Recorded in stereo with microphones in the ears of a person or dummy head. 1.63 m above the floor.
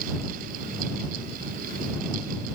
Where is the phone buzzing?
I don't hear a phone buzzing.